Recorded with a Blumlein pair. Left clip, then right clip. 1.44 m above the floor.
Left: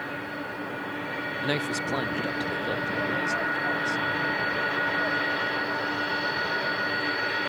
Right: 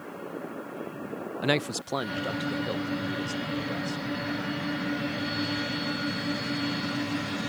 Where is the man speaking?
15° right; by 4.0 s 10° left.